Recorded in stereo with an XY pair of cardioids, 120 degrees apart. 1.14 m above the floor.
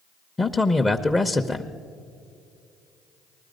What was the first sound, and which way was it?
A man speaking, 15° left.